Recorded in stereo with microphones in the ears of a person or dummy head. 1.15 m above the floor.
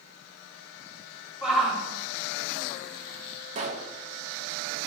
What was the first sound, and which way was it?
A shout, 5° left (ahead or behind).